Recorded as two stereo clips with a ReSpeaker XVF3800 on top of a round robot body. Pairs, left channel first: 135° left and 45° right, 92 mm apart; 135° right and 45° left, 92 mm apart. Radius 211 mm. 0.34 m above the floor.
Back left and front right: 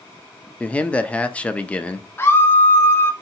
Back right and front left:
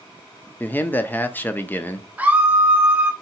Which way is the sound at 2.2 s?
100° left.